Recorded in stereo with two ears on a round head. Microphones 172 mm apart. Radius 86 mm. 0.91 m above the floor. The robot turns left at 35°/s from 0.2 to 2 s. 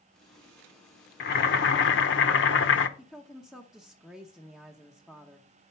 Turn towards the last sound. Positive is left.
turn(degrees=0)  # may be behind; listen again after turning